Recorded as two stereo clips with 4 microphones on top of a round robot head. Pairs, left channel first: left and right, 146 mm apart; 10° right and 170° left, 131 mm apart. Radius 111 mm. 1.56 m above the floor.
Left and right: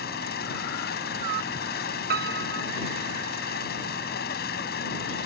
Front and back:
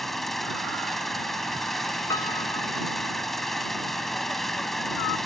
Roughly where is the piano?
Right.